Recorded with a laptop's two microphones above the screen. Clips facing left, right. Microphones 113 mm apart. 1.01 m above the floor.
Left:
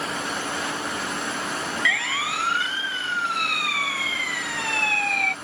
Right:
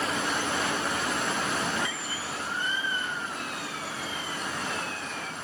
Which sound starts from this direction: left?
A siren, at 1.9 s.